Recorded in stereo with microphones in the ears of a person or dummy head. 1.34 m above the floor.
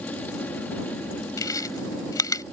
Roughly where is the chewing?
Left.